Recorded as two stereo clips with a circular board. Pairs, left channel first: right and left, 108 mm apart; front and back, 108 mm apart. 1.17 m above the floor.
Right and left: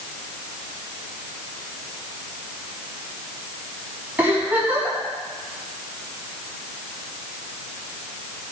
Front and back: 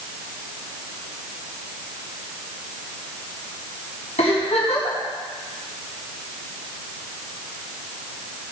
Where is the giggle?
15° left, 6.5 m.